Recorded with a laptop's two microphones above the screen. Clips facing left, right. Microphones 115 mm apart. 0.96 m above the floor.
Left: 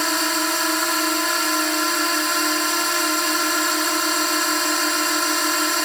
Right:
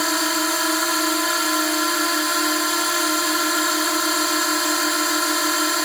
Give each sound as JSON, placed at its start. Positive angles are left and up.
{"t": 0.0, "sound": "a drone", "side_deg": -5}